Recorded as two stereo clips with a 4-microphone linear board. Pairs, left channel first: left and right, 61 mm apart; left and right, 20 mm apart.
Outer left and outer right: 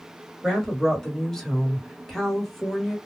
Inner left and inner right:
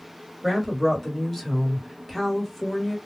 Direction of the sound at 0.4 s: 5° left (ahead or behind).